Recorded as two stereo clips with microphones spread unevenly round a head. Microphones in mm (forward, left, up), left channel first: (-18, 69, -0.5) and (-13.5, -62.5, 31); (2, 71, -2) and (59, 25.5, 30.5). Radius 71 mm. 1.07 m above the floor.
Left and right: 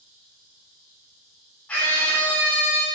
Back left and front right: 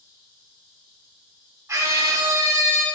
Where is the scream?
10° left, 3 m.